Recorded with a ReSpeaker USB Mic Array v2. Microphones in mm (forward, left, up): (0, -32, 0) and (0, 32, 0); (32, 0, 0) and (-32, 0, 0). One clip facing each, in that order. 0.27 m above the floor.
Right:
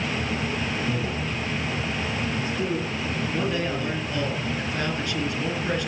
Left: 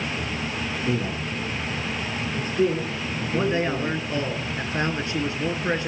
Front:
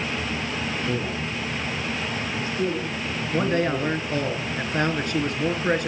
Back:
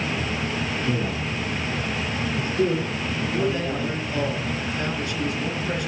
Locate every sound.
0.8 s a man speaking: 110° left, 3 m; by 4.3 s 115° left, 7 m
3.3 s a man speaking: 30° left, 3 m